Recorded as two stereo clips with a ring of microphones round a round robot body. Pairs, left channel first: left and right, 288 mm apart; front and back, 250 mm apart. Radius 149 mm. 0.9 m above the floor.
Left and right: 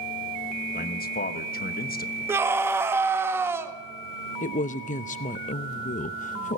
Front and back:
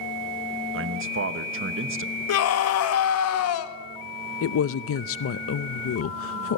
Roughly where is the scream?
Ahead.